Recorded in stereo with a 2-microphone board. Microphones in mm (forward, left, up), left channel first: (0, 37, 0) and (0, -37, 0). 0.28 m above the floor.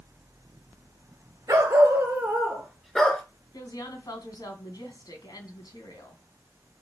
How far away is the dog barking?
About 2.5 m.